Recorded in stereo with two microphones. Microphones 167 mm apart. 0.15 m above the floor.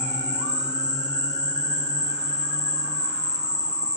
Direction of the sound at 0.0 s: 45° right (ahead or behind).